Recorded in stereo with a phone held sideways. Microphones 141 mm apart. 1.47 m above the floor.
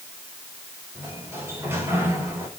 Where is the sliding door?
15° right (ahead or behind), 5 m.